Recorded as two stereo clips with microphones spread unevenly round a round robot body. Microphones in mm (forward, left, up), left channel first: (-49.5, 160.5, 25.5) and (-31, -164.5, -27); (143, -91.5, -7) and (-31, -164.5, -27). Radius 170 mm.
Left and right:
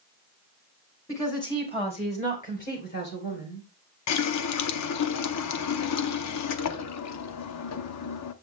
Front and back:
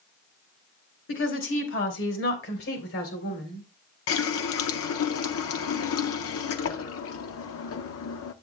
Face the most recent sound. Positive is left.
turn(degrees=40)